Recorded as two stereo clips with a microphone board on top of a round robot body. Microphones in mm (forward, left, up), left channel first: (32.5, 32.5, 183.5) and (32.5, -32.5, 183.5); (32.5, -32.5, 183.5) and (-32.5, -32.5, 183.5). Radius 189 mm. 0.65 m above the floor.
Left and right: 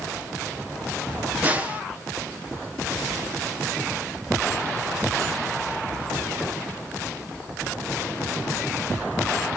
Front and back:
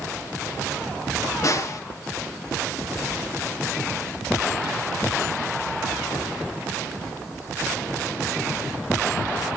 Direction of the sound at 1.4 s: 25° right.